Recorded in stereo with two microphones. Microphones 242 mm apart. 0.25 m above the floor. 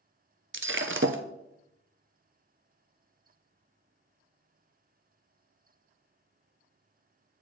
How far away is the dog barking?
No dog barking in this recording.